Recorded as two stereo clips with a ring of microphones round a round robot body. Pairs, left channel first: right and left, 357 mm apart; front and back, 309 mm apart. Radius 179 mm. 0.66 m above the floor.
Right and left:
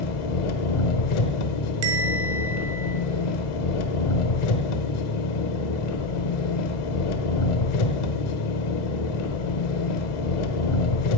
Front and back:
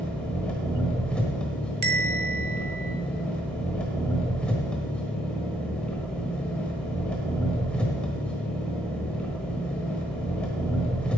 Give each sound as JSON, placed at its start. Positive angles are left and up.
{"t": 0.0, "sound": "an engine running", "azimuth_deg": -85, "distance_m": 1.1}
{"t": 1.8, "sound": "a bell", "azimuth_deg": 120, "distance_m": 1.7}